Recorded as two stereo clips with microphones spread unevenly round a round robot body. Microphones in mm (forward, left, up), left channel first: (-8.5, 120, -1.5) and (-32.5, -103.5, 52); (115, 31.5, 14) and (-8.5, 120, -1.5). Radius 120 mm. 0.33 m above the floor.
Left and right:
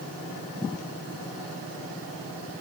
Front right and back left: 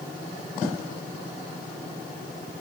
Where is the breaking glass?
No breaking glass in this recording.